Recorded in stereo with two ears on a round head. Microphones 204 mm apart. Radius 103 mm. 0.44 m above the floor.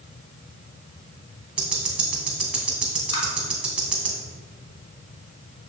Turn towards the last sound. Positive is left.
turn(degrees=55)  # may be behind; listen again after turning